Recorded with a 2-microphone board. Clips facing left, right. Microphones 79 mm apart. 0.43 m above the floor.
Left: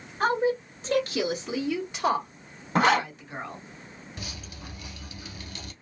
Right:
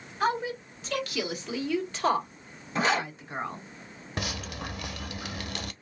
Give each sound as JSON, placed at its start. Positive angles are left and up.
{"t": 0.2, "sound": "a woman speaking", "side_deg": 45, "distance_m": 1.8}
{"t": 2.8, "sound": "a zipper", "side_deg": 55, "distance_m": 1.0}
{"t": 4.2, "sound": "dripping", "side_deg": -75, "distance_m": 0.5}